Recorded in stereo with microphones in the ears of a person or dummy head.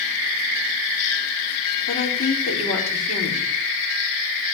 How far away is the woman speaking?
About 4.5 m.